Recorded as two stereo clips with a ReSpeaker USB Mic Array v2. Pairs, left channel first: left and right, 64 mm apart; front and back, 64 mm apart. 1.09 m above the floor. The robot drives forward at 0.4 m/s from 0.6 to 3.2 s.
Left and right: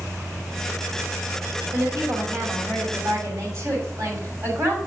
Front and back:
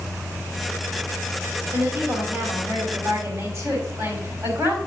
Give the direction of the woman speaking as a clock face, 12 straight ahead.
4 o'clock.